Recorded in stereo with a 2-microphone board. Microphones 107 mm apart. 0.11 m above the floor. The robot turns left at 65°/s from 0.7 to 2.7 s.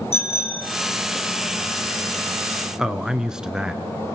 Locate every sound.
0.1 s a bicycle bell: 70° left (ahead or behind), 3.5 m
2.8 s a man speaking: 5° right (ahead or behind), 1.2 m